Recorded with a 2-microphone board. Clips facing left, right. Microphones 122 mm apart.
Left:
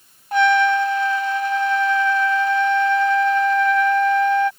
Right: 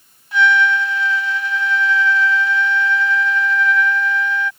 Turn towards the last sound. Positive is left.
turn(degrees=45)  # may be behind; listen again after turning